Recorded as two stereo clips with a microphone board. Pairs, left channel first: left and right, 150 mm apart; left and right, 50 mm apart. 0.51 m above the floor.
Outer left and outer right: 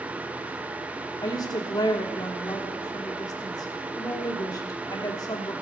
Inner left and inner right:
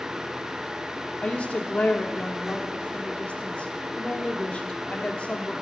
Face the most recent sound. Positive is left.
turn(degrees=25)  # may be behind; listen again after turning